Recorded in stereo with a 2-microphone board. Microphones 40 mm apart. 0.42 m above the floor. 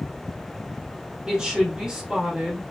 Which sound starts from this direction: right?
A woman speaking, at 1.3 s.